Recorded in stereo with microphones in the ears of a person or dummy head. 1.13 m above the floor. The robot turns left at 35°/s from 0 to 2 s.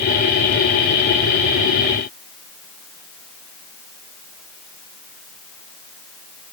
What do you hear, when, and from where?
Only background noise.